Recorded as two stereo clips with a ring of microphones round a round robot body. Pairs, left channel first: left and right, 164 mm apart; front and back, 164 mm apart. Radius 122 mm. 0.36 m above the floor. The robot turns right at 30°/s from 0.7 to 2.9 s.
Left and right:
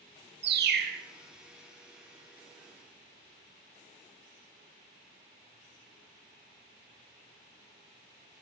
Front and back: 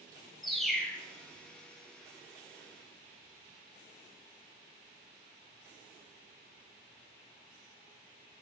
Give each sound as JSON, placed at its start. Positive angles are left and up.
{"t": 0.4, "sound": "a bird", "azimuth_deg": -90, "distance_m": 0.8}